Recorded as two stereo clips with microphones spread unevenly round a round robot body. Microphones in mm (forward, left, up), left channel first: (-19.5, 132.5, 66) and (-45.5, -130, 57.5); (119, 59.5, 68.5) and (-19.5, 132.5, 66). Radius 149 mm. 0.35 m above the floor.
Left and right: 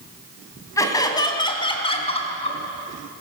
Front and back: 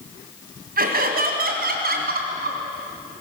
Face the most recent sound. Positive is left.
turn(degrees=150)